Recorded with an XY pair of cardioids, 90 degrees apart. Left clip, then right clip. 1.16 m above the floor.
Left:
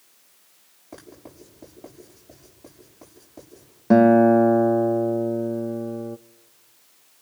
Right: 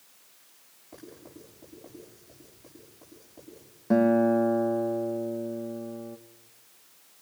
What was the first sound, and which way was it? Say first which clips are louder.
Writing: left 4 dB; 70° left.